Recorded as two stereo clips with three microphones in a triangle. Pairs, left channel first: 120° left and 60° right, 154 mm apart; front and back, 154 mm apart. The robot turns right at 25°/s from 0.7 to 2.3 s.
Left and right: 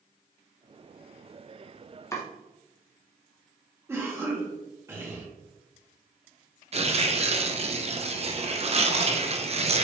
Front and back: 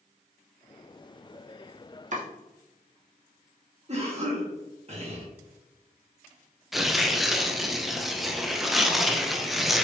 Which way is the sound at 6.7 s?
90° right.